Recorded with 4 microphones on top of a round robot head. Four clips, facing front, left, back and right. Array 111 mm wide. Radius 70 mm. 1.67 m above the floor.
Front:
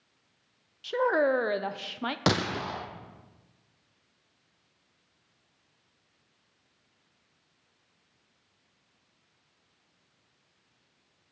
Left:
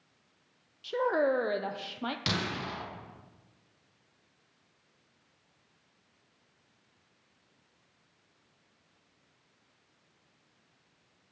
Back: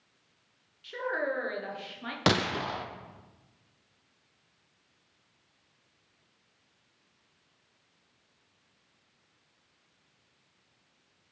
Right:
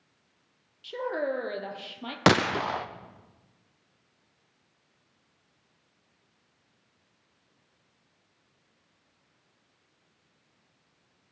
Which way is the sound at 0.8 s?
10° left.